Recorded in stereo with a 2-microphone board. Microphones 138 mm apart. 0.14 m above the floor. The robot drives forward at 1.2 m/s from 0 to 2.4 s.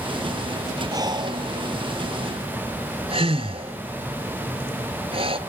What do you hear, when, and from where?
0.9 s breathing: 25° right (ahead or behind), 1.4 m; by 5.4 s 40° right (ahead or behind), 1.0 m